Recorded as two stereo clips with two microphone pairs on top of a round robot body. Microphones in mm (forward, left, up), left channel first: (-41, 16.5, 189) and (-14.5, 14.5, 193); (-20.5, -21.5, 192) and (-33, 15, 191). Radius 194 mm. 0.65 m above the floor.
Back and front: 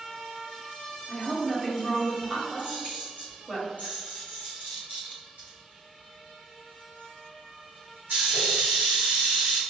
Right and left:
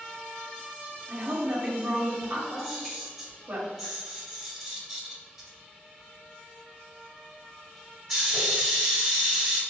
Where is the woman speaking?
90° left, 1.9 m.